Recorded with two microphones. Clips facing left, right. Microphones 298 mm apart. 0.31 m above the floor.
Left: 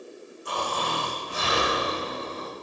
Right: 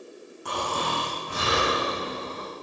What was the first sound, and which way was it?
Snoring, 75° right (ahead or behind).